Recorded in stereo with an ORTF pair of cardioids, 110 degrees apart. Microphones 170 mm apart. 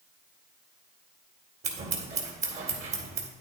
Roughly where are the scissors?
Ahead right.